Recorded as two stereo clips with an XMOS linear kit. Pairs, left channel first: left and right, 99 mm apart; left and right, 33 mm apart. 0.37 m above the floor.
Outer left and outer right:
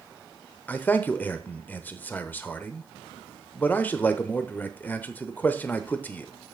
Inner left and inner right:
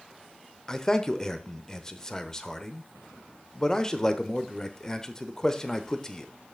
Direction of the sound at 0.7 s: 15° left (ahead or behind).